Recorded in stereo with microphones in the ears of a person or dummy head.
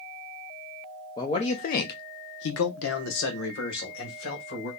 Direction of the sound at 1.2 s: 25° left (ahead or behind).